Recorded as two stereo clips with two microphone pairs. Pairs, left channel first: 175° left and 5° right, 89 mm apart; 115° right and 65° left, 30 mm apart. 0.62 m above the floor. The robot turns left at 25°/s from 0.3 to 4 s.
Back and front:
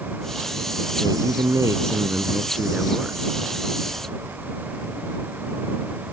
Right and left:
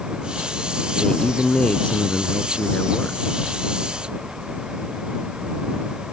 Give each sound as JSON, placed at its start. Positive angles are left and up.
{"t": 1.0, "sound": "a man speaking", "azimuth_deg": -40}